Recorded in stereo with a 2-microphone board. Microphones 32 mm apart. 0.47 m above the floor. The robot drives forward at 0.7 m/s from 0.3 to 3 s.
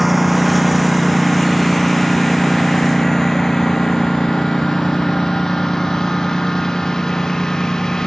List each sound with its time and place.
0.0 s a lawn mower: centre (ahead or behind); by 8.1 s 20° left (ahead or behind)